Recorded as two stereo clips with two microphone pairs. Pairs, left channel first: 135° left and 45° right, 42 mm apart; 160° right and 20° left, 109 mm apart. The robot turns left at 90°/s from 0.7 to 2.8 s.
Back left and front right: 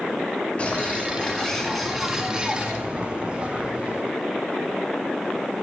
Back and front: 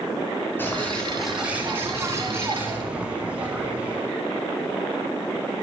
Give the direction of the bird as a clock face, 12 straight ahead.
7 o'clock.